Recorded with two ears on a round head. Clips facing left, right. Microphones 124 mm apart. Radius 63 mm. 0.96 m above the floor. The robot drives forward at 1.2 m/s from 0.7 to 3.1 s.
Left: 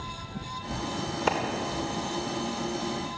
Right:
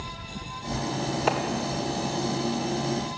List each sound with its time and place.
1.3 s a clap: centre (ahead or behind), 3 m